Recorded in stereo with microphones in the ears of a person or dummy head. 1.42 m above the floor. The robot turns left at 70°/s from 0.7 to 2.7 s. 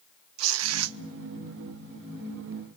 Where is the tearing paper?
80° right, 0.8 m; by 1.0 s 75° right (ahead or behind), 0.8 m.